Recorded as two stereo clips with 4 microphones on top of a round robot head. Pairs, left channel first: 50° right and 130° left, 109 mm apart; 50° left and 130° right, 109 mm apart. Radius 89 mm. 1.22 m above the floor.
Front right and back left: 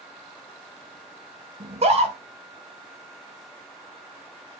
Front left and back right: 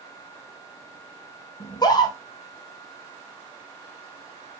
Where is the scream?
105° left, 2 m.